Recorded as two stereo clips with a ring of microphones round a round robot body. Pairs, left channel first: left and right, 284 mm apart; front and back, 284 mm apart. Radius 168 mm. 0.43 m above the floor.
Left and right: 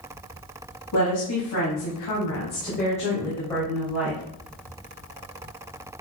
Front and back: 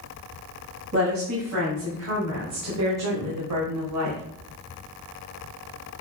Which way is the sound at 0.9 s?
125° left.